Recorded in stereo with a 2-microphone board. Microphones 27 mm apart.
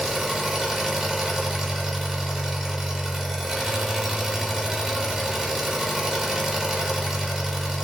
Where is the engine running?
15° right (ahead or behind), 0.7 m.